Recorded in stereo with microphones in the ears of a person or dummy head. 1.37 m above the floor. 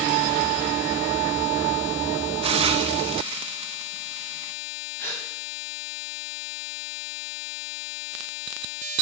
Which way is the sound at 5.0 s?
15° left (ahead or behind).